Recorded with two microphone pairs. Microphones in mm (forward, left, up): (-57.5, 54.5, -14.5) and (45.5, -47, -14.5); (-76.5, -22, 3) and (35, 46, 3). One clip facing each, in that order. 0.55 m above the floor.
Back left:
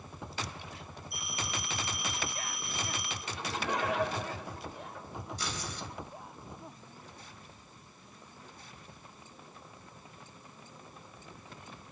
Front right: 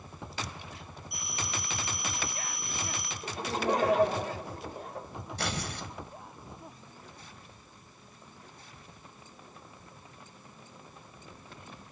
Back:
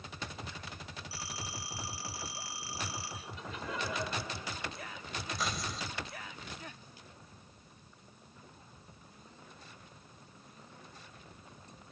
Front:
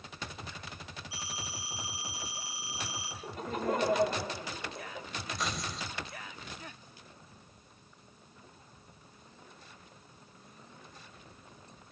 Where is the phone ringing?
40° right, 8 m.